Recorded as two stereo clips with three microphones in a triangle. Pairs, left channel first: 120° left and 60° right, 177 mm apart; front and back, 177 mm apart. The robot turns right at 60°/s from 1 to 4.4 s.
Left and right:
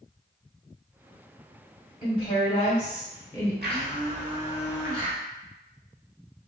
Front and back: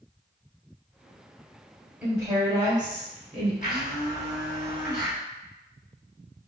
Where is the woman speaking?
105° left, 0.9 m; by 3.5 s 165° right, 0.9 m.